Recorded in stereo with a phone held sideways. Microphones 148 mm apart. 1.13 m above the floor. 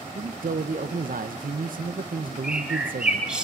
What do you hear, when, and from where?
0.1 s a man speaking: 70° right (ahead or behind), 0.7 m
2.4 s a bird: 5° right (ahead or behind), 1.9 m